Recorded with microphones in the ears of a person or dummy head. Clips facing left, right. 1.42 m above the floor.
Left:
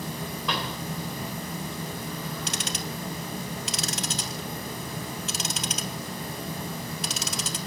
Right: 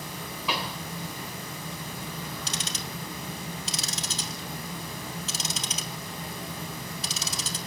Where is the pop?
Centre (ahead or behind), 3 m.